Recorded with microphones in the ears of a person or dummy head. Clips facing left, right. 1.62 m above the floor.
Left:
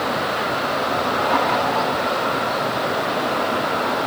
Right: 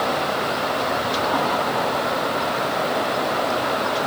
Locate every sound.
Only background noise.